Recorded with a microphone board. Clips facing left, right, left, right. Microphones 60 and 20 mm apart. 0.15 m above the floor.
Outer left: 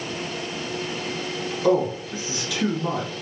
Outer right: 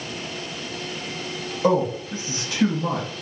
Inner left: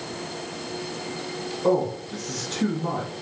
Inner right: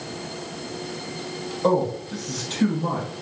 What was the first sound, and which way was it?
A man speaking, 40° right (ahead or behind).